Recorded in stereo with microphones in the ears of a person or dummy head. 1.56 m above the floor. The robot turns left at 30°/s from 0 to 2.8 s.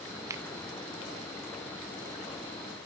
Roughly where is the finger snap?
Centre.